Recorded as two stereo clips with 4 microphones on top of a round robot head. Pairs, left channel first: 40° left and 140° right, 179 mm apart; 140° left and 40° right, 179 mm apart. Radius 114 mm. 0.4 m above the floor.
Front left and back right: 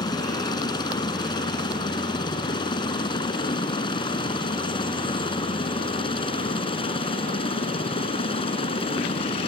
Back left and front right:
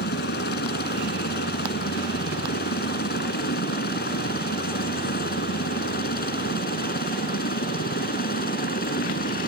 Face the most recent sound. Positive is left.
turn(degrees=100)